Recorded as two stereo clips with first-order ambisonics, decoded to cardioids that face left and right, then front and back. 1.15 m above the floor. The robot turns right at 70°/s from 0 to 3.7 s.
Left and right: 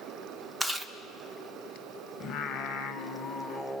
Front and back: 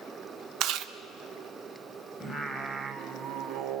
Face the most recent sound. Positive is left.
turn(degrees=170)